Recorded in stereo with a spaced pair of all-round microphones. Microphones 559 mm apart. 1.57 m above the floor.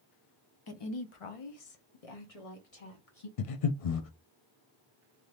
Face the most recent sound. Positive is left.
turn(degrees=75)  # may be behind; listen again after turning